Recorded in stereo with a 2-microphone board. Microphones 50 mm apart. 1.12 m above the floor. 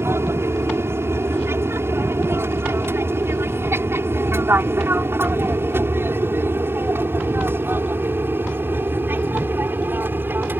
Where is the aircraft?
65° right (ahead or behind); by 10.6 s 45° right (ahead or behind).